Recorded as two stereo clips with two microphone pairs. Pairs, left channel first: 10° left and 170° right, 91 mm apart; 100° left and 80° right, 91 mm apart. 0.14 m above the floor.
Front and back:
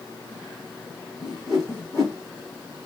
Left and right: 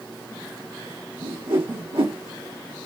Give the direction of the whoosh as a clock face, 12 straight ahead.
3 o'clock.